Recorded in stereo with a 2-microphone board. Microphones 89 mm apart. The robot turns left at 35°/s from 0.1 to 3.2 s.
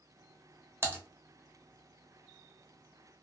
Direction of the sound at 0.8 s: 30° right (ahead or behind).